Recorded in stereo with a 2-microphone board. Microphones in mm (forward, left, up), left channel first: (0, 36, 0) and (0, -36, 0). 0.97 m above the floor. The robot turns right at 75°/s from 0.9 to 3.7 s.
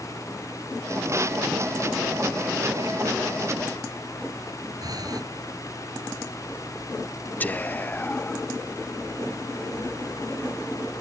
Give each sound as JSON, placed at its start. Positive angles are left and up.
{"t": 4.8, "sound": "breathing", "side_deg": -60}
{"t": 7.4, "sound": "whispering", "side_deg": 25}